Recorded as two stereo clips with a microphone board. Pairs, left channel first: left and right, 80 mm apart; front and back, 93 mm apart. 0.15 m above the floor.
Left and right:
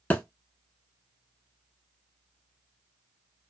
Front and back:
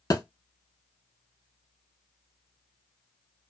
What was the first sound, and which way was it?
A thud, 30° left.